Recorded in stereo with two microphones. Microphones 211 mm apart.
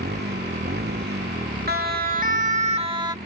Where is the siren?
50° right (ahead or behind); by 3.1 s 20° right (ahead or behind).